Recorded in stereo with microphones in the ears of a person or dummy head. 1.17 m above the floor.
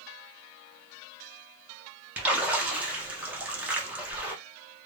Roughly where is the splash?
Centre.